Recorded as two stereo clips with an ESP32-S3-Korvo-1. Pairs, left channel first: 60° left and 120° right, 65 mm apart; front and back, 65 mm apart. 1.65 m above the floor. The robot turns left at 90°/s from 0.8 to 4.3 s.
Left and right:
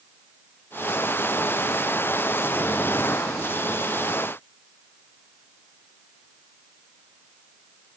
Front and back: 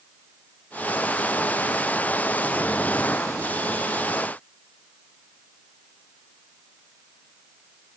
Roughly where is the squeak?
No squeak in this recording.